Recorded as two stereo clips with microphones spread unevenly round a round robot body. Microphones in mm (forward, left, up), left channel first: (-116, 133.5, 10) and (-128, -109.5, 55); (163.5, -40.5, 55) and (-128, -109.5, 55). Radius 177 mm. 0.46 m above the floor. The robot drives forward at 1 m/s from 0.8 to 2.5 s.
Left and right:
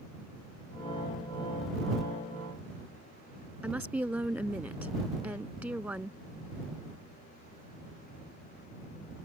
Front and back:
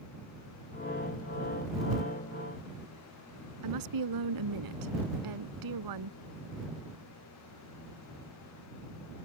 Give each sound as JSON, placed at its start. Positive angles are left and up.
{"t": 3.6, "sound": "a woman speaking", "azimuth_deg": -175}